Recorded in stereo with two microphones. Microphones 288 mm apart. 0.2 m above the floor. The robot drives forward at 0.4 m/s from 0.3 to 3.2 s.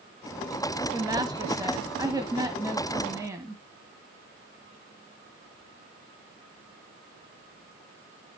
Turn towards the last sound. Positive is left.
turn(degrees=-10)  # may be behind; listen again after turning